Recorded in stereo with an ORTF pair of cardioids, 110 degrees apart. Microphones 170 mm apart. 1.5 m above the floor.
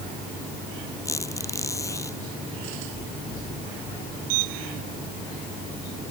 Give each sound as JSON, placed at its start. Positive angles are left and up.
{"t": 1.1, "sound": "a squeak", "azimuth_deg": 15}